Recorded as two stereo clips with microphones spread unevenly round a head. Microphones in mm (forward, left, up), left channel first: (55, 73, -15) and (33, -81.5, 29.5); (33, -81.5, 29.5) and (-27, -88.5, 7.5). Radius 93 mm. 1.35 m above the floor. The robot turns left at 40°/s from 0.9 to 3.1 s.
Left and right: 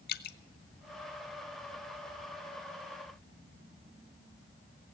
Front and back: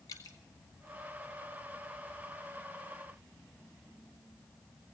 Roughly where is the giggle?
No giggle in this recording.